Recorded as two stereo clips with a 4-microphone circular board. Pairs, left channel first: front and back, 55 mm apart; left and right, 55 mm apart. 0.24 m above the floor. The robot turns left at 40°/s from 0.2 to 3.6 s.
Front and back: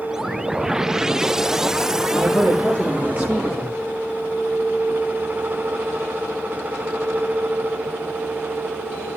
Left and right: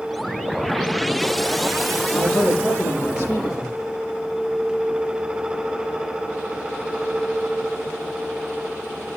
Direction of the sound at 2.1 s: 150° left.